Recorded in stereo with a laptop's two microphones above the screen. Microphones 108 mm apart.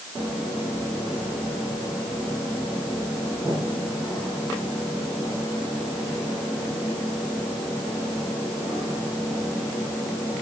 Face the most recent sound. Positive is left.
No sound to turn to.